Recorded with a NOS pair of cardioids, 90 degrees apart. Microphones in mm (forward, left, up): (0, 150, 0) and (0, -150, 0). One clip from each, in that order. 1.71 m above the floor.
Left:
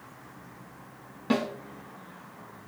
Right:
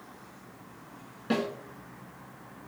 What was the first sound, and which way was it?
A snare drum, 25° left.